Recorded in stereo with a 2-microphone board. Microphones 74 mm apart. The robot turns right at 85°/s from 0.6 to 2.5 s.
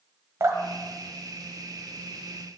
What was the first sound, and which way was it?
Dripping, 45° right (ahead or behind).